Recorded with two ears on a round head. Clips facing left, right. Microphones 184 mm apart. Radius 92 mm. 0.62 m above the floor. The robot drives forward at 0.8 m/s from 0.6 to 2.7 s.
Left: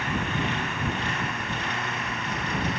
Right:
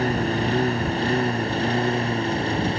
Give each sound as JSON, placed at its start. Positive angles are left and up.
{"t": 0.0, "sound": "a lawn mower", "side_deg": -30}